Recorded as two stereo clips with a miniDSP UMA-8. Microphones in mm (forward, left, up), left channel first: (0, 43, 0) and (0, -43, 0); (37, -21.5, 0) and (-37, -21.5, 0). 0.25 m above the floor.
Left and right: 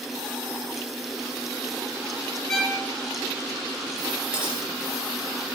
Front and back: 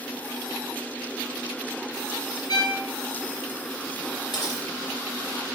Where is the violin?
10° left, 1.6 m.